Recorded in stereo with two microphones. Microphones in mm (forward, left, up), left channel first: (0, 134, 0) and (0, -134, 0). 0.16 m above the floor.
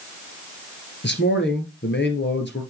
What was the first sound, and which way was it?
A man speaking, 40° left (ahead or behind).